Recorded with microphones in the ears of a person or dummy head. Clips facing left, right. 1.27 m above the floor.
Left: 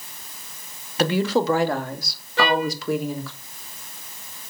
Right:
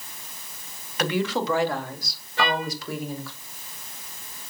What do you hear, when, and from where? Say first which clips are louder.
1.0 s a woman speaking: left 5 dB; 30° left (ahead or behind), 1.9 m; by 3.3 s 85° left, 3 m
2.4 s a trumpet: left 5 dB; 50° left (ahead or behind), 3.5 m